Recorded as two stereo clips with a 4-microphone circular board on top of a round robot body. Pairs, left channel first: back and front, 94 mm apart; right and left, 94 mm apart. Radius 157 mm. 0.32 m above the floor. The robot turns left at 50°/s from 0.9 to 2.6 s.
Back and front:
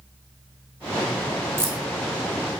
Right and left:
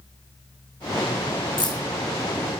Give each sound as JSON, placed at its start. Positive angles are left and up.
{"t": 1.6, "sound": "keys jangling", "azimuth_deg": -60, "distance_m": 1.6}